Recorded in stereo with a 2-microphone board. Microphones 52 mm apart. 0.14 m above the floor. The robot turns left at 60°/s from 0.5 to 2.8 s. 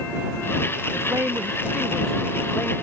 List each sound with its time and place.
0.9 s a man speaking: 110° right; by 2.7 s 140° left